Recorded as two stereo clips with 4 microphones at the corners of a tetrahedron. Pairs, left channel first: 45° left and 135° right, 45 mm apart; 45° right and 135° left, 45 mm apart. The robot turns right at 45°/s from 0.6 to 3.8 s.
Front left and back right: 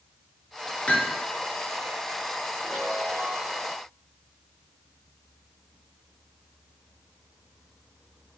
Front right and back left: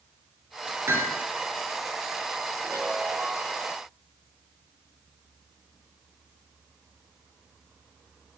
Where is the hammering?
110° left, 2.5 m; by 1.2 s 125° left, 2.5 m.